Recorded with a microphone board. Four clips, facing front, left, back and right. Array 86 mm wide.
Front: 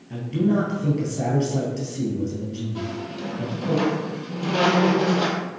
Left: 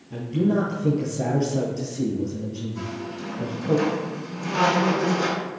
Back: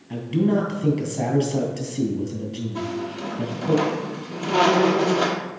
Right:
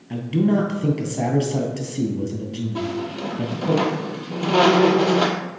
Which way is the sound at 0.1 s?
115° right.